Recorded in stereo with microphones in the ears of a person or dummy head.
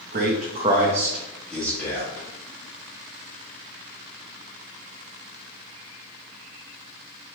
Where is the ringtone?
I don't hear a ringtone.